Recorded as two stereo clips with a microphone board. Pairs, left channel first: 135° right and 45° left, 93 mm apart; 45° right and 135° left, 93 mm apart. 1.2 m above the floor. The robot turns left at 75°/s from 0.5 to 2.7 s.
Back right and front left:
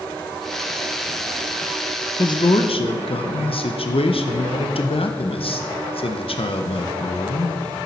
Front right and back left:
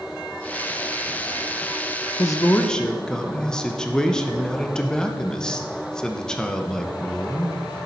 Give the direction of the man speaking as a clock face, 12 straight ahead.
3 o'clock.